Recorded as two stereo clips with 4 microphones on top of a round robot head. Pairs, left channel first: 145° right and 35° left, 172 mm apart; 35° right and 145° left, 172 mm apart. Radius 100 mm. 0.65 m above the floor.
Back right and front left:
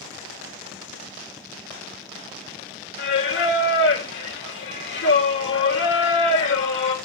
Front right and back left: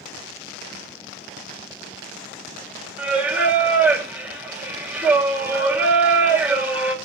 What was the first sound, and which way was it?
Singing, 135° right.